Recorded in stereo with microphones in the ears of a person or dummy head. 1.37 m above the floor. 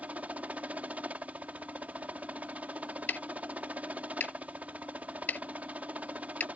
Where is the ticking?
10° left (ahead or behind).